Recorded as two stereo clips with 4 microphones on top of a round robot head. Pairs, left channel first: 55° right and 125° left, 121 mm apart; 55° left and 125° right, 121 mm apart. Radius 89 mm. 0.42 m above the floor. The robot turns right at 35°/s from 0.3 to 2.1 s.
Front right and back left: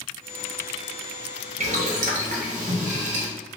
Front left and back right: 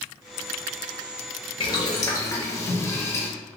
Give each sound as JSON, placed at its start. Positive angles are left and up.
{"t": 1.6, "sound": "boiling", "azimuth_deg": 100, "distance_m": 0.6}